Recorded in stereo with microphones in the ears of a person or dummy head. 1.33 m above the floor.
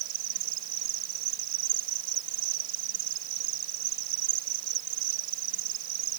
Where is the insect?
45° right (ahead or behind).